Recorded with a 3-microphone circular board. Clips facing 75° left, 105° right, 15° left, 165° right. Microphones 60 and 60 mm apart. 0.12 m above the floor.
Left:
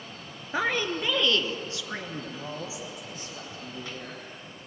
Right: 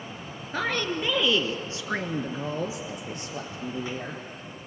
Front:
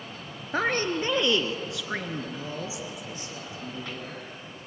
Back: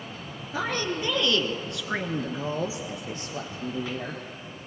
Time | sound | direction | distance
0.5 | a woman speaking | 5° left | 2 m